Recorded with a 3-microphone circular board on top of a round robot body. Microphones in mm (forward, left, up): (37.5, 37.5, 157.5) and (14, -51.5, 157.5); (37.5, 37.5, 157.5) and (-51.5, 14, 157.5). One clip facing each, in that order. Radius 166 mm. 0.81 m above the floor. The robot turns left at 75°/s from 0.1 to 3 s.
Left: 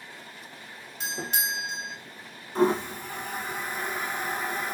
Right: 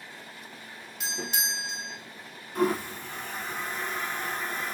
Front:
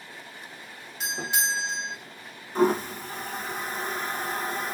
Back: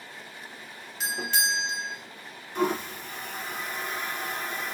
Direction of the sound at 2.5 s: 40° left.